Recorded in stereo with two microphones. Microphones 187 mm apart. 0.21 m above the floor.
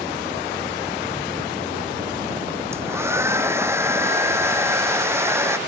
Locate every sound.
2.7 s a hair dryer: 15° right (ahead or behind)